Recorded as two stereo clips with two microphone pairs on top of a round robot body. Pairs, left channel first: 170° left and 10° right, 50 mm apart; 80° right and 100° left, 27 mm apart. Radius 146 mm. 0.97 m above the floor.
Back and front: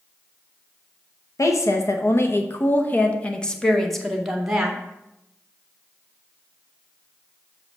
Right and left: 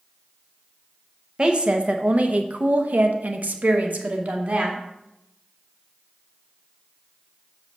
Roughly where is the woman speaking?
Behind left.